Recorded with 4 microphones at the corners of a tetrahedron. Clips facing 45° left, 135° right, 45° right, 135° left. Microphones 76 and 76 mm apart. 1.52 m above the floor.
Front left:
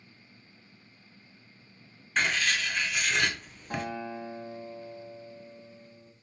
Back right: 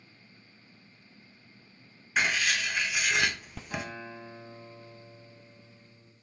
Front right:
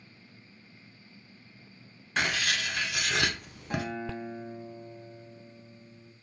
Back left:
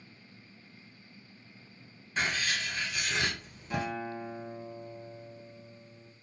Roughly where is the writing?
Ahead right.